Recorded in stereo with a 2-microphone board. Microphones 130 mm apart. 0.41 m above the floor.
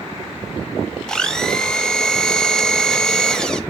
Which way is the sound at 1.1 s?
5° left (ahead or behind).